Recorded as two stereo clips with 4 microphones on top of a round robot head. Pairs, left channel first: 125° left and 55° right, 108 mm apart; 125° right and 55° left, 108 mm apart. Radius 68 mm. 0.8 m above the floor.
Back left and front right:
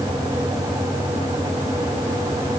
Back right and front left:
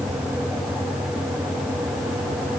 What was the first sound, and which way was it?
Only background noise.